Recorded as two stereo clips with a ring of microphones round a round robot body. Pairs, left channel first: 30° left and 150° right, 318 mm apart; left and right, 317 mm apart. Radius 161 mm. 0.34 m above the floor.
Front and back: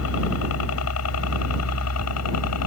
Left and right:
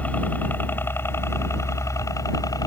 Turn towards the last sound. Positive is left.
turn(degrees=15)